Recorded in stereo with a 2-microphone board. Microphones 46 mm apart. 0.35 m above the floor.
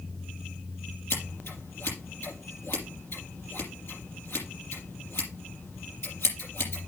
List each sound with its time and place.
1.1 s scissors: 60° left (ahead or behind), 5 m